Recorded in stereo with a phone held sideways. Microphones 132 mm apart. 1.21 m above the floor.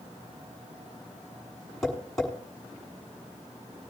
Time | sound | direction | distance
1.8 | tapping | 5° left (ahead or behind) | 6.5 m